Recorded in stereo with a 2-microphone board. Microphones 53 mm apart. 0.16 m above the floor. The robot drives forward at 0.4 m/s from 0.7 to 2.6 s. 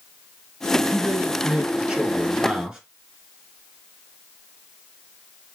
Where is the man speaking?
20° right (ahead or behind), 1.6 m; by 2.8 s 15° right (ahead or behind), 2.0 m.